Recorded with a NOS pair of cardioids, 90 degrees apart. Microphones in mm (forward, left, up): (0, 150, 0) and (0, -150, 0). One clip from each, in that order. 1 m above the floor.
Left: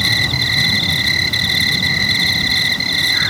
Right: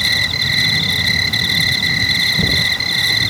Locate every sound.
0.0 s an insect: straight ahead